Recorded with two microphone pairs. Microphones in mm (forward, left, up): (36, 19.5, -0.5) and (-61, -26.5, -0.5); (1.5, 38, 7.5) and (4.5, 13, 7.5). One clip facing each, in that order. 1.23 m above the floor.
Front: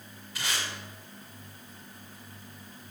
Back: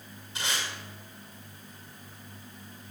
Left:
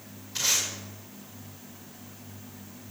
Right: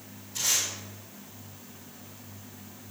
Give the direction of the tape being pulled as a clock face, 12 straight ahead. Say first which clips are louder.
Back 1 dB, left 1 dB; 7 o'clock.